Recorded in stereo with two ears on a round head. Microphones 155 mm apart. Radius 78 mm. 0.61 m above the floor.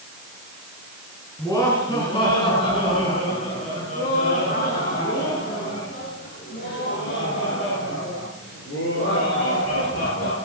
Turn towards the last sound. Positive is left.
turn(degrees=80)